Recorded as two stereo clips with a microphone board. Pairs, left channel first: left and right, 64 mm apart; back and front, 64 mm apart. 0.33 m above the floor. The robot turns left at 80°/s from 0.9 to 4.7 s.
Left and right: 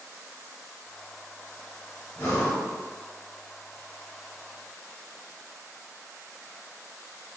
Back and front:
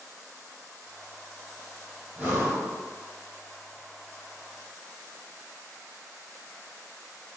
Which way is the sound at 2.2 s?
60° left.